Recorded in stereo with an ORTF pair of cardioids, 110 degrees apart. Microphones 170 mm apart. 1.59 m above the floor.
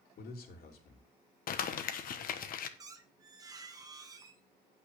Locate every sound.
0.2 s a man speaking: 60° left, 3 m
1.5 s crumpling: 55° left, 1.2 m
2.8 s a squeak: 20° right, 1.3 m